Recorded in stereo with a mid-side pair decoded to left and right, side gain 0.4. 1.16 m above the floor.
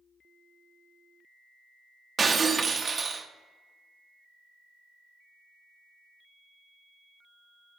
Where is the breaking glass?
40° right, 0.9 m.